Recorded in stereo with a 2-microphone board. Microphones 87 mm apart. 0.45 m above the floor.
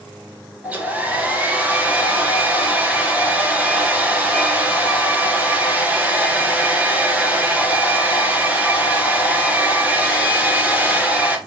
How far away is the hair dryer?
About 1.9 m.